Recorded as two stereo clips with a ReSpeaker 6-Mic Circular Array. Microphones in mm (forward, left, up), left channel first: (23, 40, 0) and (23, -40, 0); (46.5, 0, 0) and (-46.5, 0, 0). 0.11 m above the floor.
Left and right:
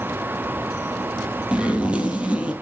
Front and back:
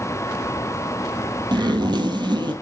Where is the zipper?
160° right, 1.8 m.